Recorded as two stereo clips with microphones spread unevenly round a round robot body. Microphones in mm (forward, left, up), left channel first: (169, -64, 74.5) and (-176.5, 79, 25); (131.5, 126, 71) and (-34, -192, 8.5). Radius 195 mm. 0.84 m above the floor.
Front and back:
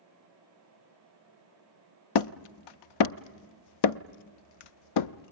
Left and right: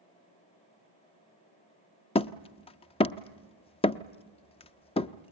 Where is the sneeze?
I don't hear a sneeze.